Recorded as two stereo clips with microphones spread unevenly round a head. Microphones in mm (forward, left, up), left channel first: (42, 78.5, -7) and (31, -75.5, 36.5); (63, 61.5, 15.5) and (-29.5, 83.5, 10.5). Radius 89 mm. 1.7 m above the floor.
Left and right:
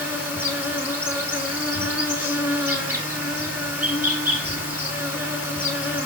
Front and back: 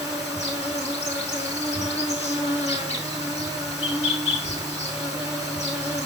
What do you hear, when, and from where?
0.0 s an insect: 20° right, 4.5 m